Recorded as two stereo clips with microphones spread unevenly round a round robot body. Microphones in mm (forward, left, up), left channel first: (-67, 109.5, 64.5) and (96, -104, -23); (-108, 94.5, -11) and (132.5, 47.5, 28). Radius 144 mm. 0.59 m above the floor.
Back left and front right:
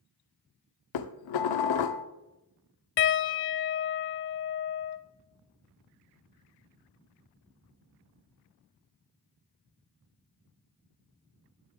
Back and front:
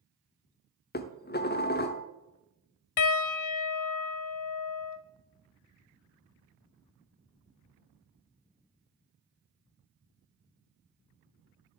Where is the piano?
170° left, 0.5 m.